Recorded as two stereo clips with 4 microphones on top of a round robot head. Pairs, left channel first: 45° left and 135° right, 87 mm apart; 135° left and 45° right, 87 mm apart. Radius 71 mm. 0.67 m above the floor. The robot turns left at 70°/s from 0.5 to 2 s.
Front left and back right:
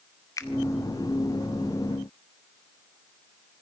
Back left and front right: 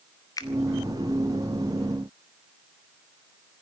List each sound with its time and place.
0.4 s a finger snap: 90° left, 2 m